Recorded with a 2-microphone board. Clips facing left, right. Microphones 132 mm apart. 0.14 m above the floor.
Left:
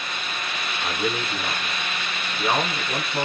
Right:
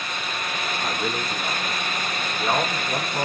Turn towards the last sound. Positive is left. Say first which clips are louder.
# left 3 dB
turn(degrees=0)  # may be behind; listen again after turning